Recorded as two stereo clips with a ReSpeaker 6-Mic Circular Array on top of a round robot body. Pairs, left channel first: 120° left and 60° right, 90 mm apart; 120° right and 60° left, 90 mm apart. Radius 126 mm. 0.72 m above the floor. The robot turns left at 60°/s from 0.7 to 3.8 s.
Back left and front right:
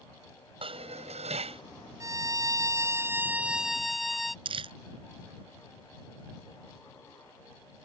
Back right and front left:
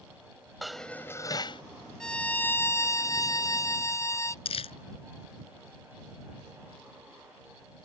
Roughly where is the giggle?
No giggle in this recording.